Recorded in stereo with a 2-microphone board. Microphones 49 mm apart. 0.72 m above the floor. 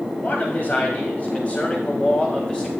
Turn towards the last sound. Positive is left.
turn(degrees=20)  # may be behind; listen again after turning